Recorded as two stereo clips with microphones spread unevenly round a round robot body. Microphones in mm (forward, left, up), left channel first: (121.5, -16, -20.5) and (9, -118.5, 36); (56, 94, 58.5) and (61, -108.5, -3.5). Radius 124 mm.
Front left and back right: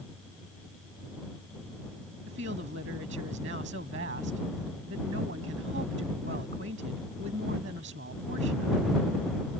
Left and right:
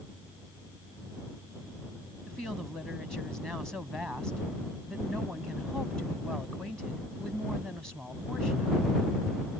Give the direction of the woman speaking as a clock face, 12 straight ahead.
6 o'clock.